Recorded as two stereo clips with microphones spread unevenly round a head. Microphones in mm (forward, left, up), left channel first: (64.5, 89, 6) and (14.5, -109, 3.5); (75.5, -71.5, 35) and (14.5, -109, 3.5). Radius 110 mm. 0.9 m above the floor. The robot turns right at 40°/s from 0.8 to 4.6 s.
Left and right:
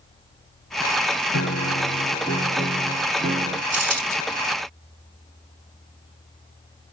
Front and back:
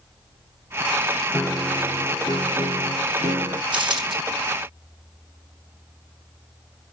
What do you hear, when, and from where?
1.3 s a piano: 115° left, 1.0 m; by 3.6 s 155° right, 1.0 m
3.7 s a dropped coin: 150° right, 6 m; by 4.2 s 135° right, 6 m